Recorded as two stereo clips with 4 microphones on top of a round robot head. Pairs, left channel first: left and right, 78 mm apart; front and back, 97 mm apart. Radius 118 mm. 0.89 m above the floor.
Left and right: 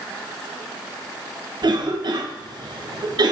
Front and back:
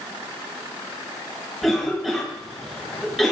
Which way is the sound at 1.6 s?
90° right.